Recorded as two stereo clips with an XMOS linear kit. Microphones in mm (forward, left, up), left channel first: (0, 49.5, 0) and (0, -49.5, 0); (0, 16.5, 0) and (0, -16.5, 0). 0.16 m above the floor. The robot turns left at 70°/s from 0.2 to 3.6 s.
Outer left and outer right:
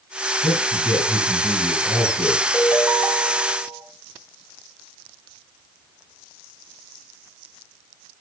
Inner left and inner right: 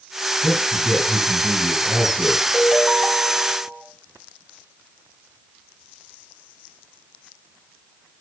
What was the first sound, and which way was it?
A man speaking, 65° left.